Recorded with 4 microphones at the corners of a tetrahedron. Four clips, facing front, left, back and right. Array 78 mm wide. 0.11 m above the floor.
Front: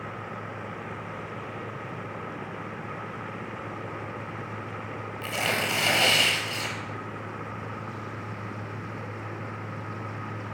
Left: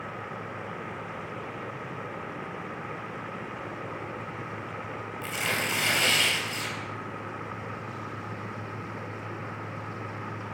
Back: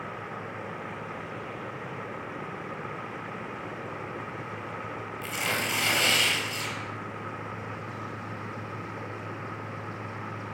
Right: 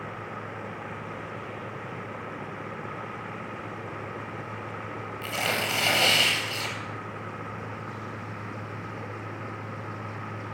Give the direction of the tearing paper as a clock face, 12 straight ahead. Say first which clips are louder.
Right 1 dB, front 3 dB; 1 o'clock.